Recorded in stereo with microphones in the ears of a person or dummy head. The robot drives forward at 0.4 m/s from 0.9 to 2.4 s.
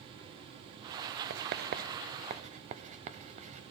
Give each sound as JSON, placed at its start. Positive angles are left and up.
{"t": 1.3, "sound": "writing", "side_deg": -50, "distance_m": 0.5}